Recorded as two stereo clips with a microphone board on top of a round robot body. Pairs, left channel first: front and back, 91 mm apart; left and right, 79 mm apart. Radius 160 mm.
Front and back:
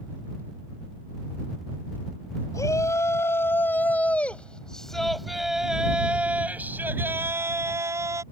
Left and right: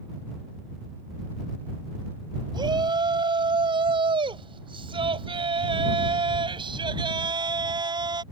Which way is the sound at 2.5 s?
60° right.